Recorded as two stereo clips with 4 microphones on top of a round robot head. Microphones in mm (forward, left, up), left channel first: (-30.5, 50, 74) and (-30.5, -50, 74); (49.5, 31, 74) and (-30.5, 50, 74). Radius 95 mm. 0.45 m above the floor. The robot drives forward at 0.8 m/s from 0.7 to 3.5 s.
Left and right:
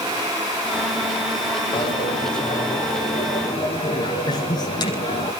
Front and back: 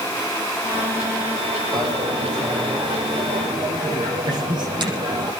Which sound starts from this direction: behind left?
A dropped coin, at 1.7 s.